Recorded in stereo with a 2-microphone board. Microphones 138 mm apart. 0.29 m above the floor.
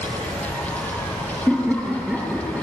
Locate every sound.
1.5 s laughter: 5° right (ahead or behind), 8 m; by 2.6 s 10° right (ahead or behind), 7.5 m